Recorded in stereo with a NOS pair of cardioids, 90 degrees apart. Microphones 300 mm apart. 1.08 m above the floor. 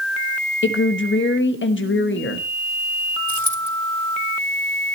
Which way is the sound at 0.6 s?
40° left.